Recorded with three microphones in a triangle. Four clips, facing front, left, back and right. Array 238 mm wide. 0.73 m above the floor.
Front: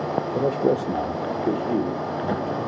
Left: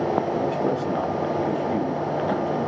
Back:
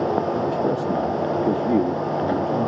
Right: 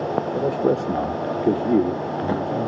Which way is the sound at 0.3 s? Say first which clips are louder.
Right 3 dB, front 1 dB; 20° right.